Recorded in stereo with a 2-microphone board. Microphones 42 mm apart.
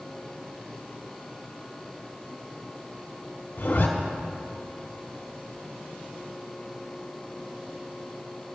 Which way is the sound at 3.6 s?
50° left (ahead or behind).